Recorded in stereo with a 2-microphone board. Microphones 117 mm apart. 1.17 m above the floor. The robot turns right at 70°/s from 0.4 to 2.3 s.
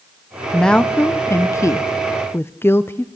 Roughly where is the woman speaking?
Centre.